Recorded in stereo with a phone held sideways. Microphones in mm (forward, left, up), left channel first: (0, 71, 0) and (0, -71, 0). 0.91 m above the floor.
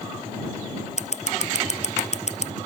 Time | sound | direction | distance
1.0 | scissors | 50° left (ahead or behind) | ?